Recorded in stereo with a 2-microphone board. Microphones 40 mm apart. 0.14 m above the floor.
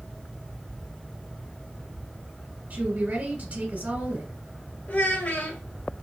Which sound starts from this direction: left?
A child speaking, at 4.9 s.